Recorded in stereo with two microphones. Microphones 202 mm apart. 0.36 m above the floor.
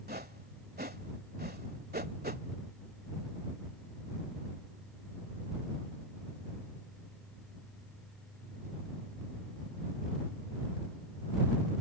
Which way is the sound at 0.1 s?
50° right (ahead or behind).